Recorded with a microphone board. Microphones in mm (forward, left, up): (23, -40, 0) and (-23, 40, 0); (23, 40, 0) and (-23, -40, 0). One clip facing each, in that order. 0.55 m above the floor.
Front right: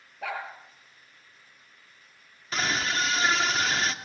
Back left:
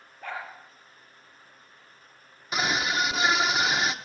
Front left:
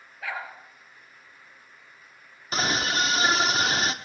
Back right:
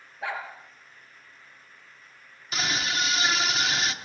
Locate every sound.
0.2 s a dog barking: 55° right, 5 m
2.5 s a scream: 50° left, 0.8 m